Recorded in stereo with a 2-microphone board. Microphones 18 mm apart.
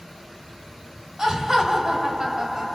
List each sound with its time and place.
1.2 s laughter: 25° right (ahead or behind), 2 m